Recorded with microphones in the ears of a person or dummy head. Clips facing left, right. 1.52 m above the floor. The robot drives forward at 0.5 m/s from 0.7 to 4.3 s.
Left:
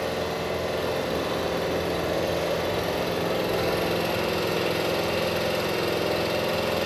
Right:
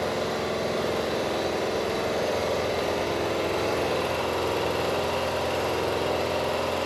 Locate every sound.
0.0 s an engine running: 10° left (ahead or behind), 2.5 m; by 6.9 s 25° left (ahead or behind), 1.0 m